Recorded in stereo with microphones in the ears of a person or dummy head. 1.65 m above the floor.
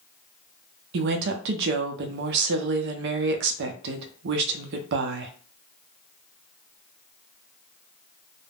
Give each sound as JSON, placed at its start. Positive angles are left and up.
{"t": 0.9, "sound": "a woman speaking", "side_deg": -65, "distance_m": 0.5}